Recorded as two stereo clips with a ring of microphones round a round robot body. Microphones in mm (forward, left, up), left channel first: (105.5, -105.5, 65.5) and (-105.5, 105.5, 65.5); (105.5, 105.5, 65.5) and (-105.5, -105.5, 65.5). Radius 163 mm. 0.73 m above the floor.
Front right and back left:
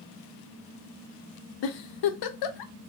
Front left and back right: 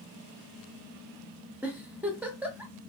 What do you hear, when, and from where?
1.6 s a giggle: 50° right, 0.5 m